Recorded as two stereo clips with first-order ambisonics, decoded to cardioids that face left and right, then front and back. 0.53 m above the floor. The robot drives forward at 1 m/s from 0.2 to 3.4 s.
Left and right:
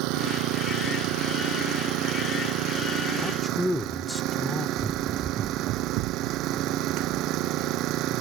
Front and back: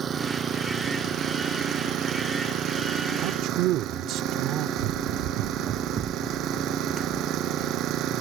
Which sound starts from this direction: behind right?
An engine running, at 0.0 s.